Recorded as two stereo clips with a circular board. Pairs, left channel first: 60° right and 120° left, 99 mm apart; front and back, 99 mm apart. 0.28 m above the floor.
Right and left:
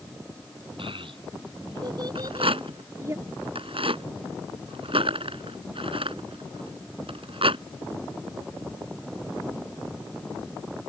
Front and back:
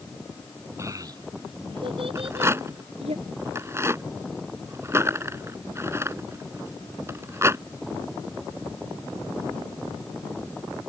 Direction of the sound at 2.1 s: 120° left.